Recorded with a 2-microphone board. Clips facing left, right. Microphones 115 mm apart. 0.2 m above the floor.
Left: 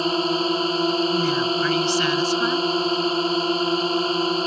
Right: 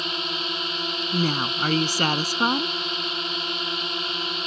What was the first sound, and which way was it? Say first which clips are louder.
A drone: left 10 dB; 40° left (ahead or behind).